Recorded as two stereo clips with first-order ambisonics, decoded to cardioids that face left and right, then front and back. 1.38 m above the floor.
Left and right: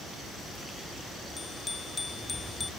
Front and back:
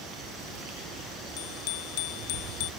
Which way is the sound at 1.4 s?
10° left.